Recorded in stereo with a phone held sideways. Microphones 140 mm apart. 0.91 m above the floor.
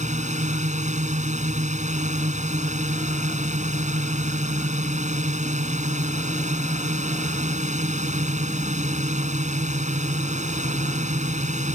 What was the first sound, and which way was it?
A drone, 55° right (ahead or behind).